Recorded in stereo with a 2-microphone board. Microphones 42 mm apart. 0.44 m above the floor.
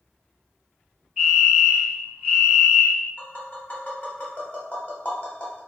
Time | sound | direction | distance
1.2 | a fire alarm | 10° right (ahead or behind) | 1.8 m
3.2 | tapping | 35° left (ahead or behind) | 0.8 m